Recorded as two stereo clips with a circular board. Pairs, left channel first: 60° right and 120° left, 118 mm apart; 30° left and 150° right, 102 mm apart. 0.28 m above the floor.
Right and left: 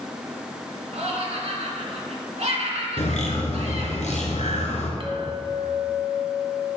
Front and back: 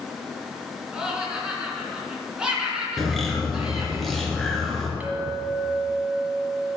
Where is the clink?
140° left, 1.4 m.